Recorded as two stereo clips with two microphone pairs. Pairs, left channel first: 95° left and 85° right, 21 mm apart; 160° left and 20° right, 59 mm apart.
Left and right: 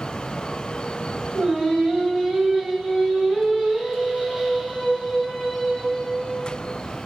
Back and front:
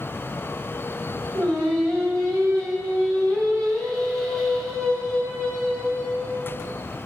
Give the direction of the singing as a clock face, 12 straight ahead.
1 o'clock.